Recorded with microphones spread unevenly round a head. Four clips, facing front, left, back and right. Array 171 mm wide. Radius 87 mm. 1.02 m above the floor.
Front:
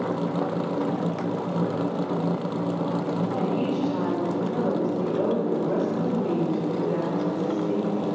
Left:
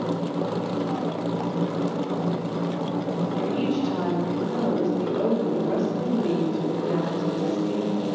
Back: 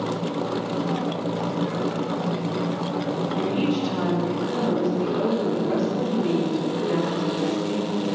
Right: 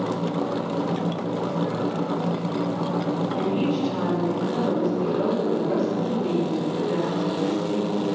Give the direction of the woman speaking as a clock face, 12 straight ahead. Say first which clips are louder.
Even, back 3 dB; 7 o'clock.